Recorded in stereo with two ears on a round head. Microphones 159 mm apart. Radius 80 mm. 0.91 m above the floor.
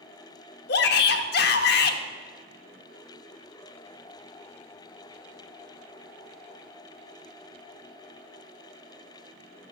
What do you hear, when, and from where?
0.7 s a shout: 65° left (ahead or behind), 1.2 m